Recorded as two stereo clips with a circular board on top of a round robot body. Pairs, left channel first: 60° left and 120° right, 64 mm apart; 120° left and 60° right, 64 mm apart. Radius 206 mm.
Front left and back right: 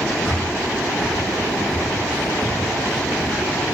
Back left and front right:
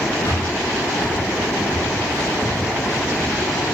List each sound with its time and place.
0.2 s breathing: 145° left, 2.5 m